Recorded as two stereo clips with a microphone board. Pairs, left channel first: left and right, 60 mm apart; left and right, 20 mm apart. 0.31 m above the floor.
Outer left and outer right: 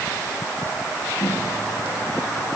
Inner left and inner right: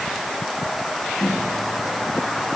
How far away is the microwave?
About 8.5 m.